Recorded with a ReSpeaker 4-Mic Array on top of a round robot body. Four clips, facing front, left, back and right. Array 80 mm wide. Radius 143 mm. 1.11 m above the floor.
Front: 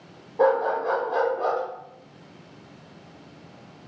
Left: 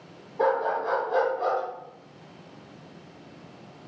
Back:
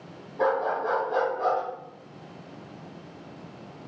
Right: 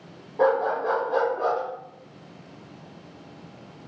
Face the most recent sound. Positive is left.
turn(degrees=-85)